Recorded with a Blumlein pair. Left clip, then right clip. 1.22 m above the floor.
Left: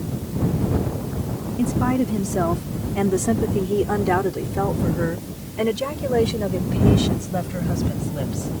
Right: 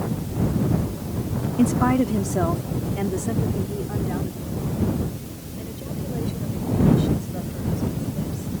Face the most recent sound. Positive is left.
turn(degrees=65)